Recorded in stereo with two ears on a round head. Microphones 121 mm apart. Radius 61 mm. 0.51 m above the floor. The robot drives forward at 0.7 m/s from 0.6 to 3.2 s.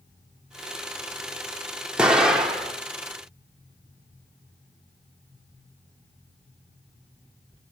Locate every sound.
2.0 s an explosion: 5° right (ahead or behind), 0.7 m